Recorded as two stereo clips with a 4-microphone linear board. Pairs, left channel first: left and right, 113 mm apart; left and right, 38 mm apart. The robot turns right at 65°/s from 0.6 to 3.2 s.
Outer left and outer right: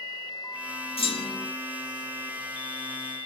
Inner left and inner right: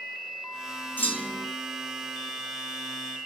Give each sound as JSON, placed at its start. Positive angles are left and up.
{"t": 1.0, "sound": "a clunk", "azimuth_deg": 115, "distance_m": 0.8}